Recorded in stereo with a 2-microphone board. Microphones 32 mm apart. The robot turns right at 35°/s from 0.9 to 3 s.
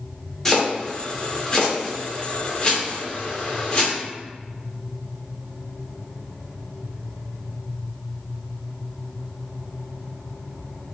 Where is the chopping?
15° left (ahead or behind), 1.2 m; by 3.9 s 30° left (ahead or behind), 1.2 m.